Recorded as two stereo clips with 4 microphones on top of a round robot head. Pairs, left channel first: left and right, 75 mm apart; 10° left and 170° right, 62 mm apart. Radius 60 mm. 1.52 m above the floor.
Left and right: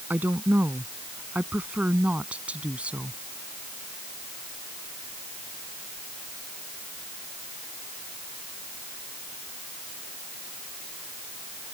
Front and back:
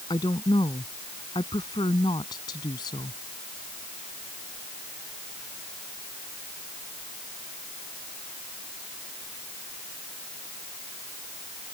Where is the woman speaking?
25° right; by 3.2 s 15° right.